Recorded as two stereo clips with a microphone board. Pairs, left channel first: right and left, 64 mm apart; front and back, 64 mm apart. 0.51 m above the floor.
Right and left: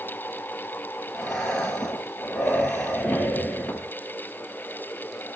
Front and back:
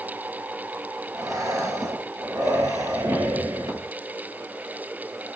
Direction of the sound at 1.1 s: 165° right.